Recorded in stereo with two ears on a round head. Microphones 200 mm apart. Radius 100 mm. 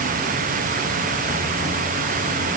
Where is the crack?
No crack in this recording.